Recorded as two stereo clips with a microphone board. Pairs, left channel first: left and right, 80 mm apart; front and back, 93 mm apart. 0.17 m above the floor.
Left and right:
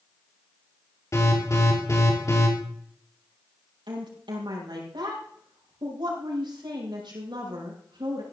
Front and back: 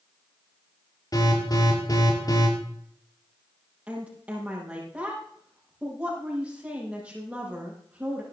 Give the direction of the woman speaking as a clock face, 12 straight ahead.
3 o'clock.